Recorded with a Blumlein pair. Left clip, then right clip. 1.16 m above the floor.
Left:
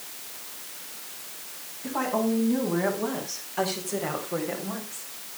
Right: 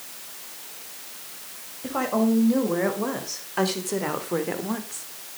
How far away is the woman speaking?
About 5 m.